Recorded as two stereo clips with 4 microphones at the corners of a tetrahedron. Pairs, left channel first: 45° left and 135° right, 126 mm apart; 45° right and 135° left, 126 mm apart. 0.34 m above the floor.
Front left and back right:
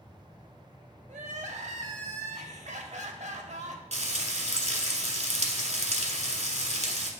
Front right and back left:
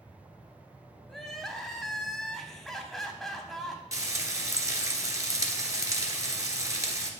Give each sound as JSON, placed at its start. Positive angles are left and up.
{"t": 1.1, "sound": "crying", "azimuth_deg": -135, "distance_m": 0.8}
{"t": 3.9, "sound": "frying", "azimuth_deg": -160, "distance_m": 0.9}